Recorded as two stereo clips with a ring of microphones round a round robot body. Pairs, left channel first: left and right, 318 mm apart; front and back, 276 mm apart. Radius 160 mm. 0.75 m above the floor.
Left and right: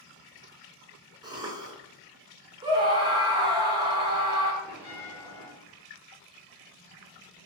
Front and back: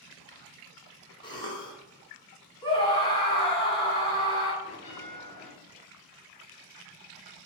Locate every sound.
1.2 s a cough: 40° right, 0.5 m
2.6 s a scream: 40° right, 0.6 m
4.6 s a bell: 75° right, 1.8 m